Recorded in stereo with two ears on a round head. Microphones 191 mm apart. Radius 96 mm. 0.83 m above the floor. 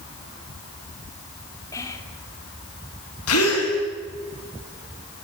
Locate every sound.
1.7 s whispering: 15° left (ahead or behind), 3 m
3.3 s a gasp: 80° left, 6.5 m